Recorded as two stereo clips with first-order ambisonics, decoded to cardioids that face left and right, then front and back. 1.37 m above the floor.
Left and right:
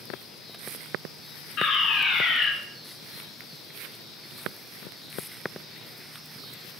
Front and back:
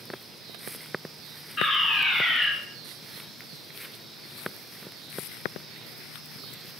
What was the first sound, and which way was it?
A fire alarm, 65° left.